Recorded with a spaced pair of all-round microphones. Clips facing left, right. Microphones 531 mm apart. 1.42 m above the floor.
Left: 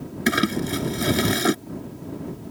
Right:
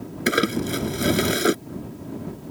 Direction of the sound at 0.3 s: 15° left (ahead or behind).